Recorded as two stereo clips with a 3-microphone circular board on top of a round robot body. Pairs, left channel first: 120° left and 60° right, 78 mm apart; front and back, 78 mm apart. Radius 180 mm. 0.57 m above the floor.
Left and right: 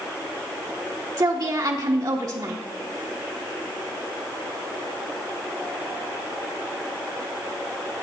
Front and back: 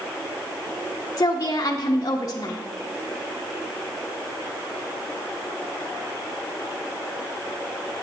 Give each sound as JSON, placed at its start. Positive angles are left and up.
{"t": 1.2, "sound": "a woman speaking", "azimuth_deg": -40, "distance_m": 1.1}